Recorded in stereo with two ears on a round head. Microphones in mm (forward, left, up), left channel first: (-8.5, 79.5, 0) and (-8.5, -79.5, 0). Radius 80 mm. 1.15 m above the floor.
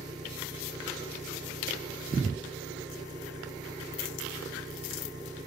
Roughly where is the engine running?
Right.